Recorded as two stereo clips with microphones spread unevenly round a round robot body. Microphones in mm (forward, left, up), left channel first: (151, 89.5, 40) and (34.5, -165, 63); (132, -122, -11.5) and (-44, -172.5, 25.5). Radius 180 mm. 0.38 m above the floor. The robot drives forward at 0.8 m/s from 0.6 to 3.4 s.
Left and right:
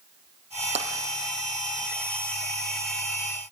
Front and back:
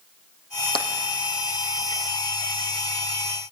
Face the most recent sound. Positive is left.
turn(degrees=-85)